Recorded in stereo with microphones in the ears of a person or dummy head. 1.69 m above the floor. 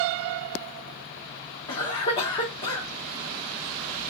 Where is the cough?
35° left (ahead or behind), 1.0 m.